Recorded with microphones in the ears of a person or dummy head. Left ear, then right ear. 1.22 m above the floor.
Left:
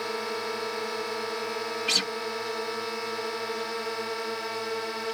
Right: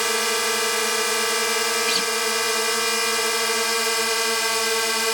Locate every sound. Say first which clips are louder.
0.0 s a drone: right 9 dB; 70° right (ahead or behind)
1.9 s a guitar: right 4 dB; centre (ahead or behind)